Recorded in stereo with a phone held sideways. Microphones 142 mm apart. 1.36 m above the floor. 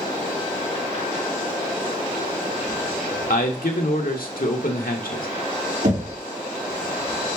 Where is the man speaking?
85° left, 1.5 m.